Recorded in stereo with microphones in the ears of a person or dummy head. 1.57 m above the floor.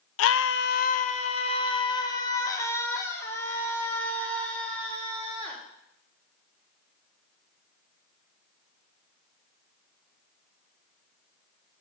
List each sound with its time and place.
0.2 s a scream: 70° left (ahead or behind), 0.6 m; by 5.6 s 5° left (ahead or behind), 3.5 m